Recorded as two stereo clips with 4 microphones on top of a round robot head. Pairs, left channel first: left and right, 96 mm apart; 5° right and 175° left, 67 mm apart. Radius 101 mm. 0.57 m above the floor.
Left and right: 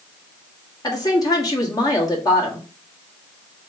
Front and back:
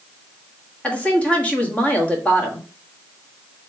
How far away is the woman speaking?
About 1.7 m.